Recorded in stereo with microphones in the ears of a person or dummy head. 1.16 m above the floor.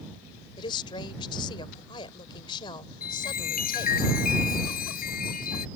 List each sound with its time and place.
0.6 s a woman speaking: 30° left (ahead or behind)
3.0 s a chime: 55° left (ahead or behind)